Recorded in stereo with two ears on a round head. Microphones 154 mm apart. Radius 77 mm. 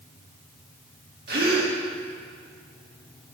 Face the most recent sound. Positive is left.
turn(degrees=-60)  # may be behind; listen again after turning